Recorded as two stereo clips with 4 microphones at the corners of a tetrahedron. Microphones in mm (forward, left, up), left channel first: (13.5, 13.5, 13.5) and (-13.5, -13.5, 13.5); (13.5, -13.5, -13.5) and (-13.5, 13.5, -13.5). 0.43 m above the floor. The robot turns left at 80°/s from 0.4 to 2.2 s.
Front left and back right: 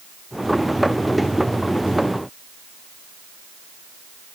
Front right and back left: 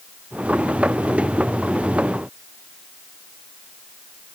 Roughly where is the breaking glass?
No breaking glass in this recording.